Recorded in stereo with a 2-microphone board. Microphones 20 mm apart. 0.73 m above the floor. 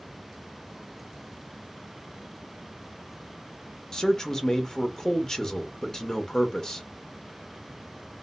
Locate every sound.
3.9 s a man speaking: 35° left (ahead or behind), 0.8 m